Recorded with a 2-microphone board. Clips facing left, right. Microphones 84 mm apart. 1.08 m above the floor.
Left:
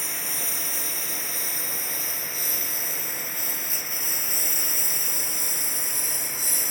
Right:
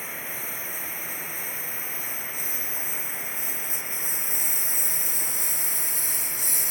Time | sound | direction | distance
0.0 | a lawn mower | 85° left | ?